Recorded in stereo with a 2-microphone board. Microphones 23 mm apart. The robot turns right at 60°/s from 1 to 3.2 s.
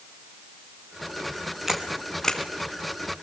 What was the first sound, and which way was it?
A camera shutter, 10° right (ahead or behind).